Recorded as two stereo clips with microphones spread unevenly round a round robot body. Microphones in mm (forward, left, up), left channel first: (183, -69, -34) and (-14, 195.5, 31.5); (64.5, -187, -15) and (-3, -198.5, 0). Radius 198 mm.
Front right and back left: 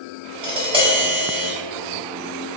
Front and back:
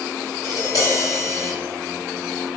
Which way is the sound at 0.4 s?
50° left.